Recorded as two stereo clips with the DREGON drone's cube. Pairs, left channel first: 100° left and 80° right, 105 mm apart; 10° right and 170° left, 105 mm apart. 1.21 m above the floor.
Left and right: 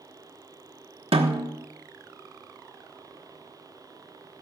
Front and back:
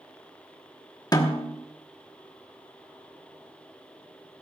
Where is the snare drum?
60° right, 1.2 m.